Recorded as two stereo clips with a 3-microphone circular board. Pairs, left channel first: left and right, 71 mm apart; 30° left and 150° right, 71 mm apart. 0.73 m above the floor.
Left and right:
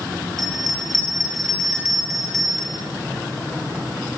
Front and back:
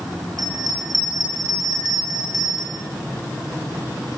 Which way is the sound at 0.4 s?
Straight behind.